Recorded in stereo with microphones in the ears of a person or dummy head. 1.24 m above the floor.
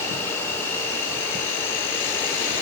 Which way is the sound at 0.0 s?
10° left (ahead or behind).